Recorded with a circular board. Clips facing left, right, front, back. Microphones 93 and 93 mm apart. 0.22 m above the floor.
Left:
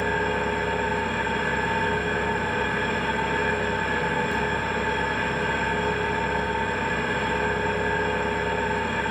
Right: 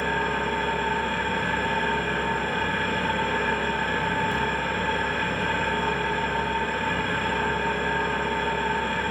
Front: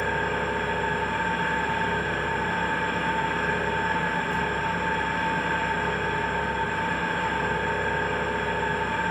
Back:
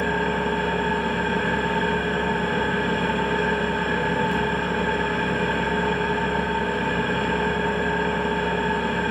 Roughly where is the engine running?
Behind.